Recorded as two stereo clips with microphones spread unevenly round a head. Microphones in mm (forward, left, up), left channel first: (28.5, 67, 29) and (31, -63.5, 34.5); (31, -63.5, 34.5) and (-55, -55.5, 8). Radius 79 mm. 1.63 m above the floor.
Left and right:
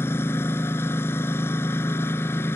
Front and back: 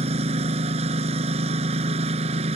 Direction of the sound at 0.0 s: 170° left.